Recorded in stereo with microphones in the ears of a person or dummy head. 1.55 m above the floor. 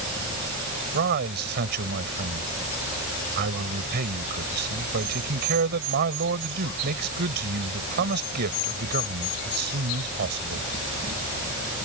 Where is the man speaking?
55° right (ahead or behind).